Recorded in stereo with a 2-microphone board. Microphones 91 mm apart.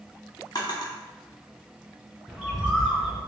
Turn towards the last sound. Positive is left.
turn(degrees=-5)  # may be behind; listen again after turning